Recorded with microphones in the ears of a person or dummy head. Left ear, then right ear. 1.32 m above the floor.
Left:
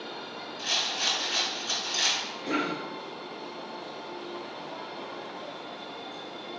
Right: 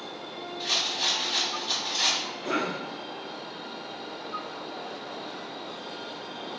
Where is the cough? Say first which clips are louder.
Even; 35° right (ahead or behind), 1.0 m.